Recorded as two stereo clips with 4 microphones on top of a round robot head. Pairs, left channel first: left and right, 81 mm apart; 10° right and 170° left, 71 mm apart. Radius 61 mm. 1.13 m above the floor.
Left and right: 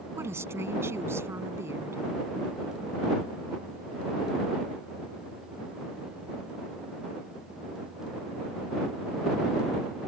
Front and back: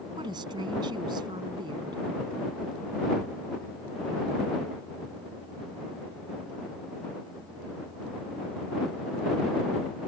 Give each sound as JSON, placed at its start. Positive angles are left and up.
{"t": 0.2, "sound": "a woman speaking", "azimuth_deg": -150}